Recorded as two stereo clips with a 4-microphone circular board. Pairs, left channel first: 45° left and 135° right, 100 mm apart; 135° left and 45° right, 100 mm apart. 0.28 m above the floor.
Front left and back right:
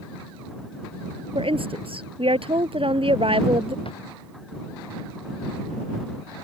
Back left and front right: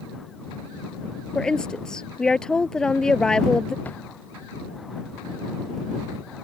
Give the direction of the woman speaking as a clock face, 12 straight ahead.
5 o'clock.